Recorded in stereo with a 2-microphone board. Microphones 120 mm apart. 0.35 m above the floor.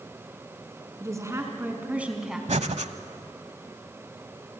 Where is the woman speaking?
25° right (ahead or behind), 4.5 m; by 2.4 s 5° right (ahead or behind), 3 m.